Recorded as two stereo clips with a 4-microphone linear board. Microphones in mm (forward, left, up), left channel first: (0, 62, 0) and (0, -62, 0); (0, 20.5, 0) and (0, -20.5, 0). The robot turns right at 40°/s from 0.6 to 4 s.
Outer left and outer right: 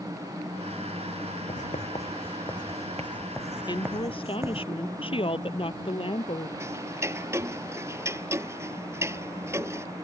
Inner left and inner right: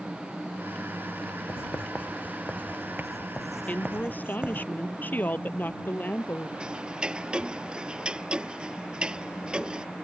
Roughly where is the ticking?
Right.